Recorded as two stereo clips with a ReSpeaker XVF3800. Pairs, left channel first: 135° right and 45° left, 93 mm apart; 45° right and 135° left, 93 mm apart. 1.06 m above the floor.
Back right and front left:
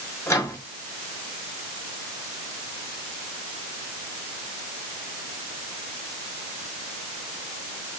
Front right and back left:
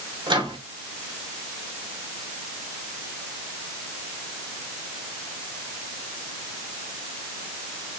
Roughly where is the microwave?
Behind.